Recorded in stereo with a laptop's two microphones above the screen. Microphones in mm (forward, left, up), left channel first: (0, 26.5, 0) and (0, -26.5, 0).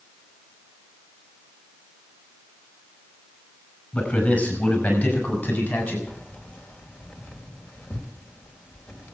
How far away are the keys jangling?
About 3 m.